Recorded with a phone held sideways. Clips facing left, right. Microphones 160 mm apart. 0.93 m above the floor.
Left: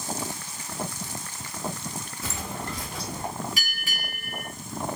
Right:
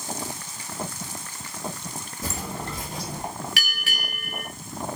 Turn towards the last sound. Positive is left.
turn(degrees=-80)